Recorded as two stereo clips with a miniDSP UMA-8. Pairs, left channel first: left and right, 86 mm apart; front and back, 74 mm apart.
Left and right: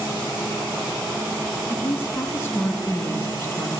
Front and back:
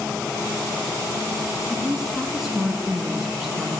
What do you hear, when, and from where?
1.7 s a woman speaking: 100° left, 1.6 m